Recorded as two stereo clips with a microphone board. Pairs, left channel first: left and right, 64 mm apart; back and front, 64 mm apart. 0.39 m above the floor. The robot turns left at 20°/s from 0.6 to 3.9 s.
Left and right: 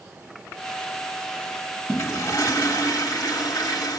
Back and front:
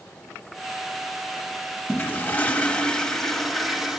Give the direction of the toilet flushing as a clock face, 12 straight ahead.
8 o'clock.